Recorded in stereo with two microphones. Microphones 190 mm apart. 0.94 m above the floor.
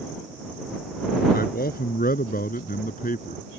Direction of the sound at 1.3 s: 50° left (ahead or behind).